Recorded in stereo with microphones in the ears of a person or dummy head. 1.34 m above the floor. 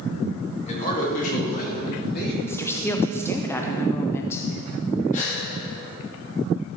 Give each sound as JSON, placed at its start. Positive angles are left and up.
{"t": 0.7, "sound": "a man speaking", "side_deg": 45, "distance_m": 2.5}
{"t": 2.5, "sound": "a woman speaking", "side_deg": 10, "distance_m": 0.6}
{"t": 5.1, "sound": "a gasp", "side_deg": 35, "distance_m": 1.9}